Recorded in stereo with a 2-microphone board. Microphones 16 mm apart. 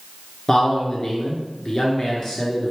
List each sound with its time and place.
0.5 s a man speaking: 35° left (ahead or behind), 1.4 m